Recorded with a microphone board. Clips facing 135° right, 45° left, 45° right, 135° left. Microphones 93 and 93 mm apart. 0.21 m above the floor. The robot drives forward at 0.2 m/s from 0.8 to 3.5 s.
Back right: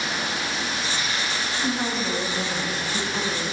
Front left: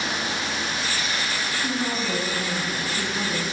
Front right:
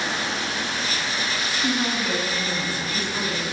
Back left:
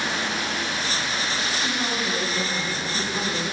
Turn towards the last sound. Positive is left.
turn(degrees=-145)